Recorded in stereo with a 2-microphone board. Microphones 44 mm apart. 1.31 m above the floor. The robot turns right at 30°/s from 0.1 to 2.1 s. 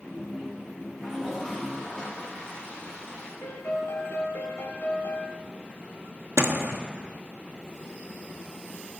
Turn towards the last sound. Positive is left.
turn(degrees=-80)